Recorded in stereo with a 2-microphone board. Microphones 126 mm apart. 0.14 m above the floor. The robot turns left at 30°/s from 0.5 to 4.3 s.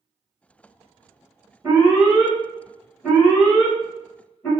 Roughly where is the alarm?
Centre.